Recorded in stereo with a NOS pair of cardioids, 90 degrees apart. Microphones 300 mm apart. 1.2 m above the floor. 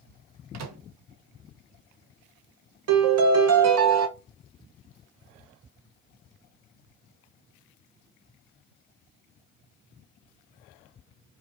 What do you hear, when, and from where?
0.5 s a microwave: 60° right, 0.8 m
2.9 s a piano: 60° right, 0.9 m